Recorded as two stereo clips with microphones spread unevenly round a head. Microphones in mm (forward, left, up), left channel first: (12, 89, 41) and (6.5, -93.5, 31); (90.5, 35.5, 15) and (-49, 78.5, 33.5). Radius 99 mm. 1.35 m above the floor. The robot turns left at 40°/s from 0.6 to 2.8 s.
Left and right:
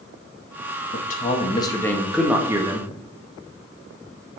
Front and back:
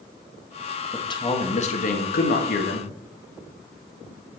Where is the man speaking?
50° left, 1.8 m; by 2.9 s 25° right, 1.8 m.